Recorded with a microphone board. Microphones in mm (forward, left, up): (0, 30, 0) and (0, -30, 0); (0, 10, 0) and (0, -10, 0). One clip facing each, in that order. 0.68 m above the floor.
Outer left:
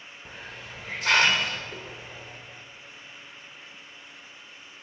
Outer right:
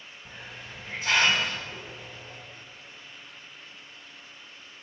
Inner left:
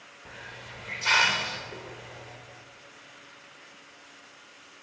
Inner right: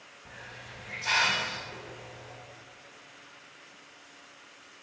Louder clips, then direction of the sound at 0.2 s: Outer left 2 dB, inner left 3 dB; 75° left (ahead or behind).